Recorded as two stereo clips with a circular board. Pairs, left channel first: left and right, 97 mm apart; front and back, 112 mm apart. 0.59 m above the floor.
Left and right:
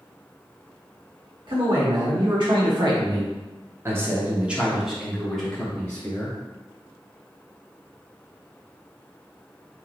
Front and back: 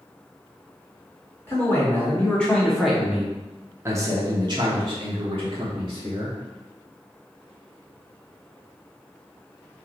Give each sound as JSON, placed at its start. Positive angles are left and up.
{"t": 1.5, "sound": "a man speaking", "azimuth_deg": -65, "distance_m": 1.5}